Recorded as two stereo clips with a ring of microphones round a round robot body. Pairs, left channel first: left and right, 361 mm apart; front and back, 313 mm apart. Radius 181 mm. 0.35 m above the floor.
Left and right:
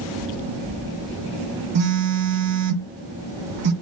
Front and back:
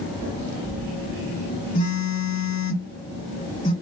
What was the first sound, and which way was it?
A phone buzzing, 70° right.